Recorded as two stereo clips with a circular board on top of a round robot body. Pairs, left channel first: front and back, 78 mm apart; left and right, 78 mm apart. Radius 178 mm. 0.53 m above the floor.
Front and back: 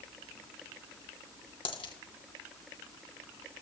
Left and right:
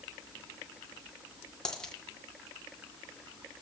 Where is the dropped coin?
10° left, 2 m.